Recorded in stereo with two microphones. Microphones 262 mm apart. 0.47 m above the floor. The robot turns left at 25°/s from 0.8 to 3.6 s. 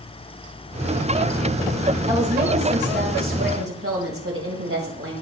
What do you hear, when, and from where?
2.1 s a woman speaking: 25° right, 1.9 m; by 5.1 s 65° right, 1.9 m